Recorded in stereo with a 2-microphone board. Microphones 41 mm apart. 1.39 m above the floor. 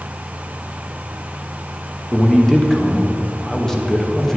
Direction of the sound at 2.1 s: 10° left (ahead or behind).